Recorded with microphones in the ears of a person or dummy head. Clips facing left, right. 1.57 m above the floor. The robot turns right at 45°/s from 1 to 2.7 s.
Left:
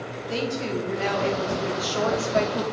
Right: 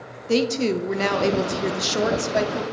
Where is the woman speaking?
70° right, 0.7 m; by 2.6 s straight ahead, 0.7 m.